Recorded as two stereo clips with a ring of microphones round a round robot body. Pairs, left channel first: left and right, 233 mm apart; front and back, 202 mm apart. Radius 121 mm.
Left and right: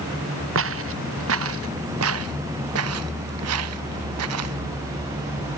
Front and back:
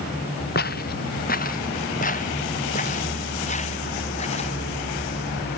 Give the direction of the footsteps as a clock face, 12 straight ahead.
2 o'clock.